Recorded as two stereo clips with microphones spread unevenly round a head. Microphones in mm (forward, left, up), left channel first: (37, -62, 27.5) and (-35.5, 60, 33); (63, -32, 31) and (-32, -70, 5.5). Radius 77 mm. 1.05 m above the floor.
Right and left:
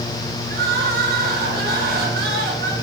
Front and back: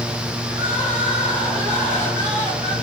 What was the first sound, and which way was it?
Crying, 145° left.